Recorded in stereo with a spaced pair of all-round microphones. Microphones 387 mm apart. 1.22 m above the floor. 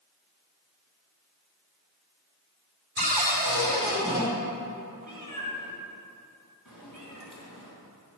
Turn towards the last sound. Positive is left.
turn(degrees=55)  # may be behind; listen again after turning